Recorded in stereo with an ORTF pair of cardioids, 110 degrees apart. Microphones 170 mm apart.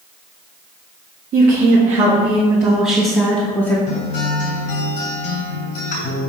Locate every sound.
1.3 s a woman speaking: 60° right, 1.8 m; by 3.8 s 20° left, 1.9 m
3.9 s a guitar: 50° left, 3 m